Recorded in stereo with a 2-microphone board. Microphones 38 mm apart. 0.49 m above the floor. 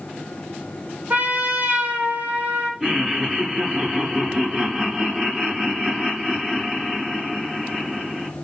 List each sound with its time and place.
1.1 s a trumpet: 45° right (ahead or behind), 3 m
2.8 s laughter: 15° right (ahead or behind), 7 m